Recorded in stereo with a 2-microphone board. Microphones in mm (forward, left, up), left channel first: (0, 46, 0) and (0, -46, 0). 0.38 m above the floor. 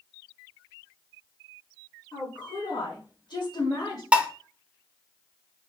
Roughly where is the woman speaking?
Left.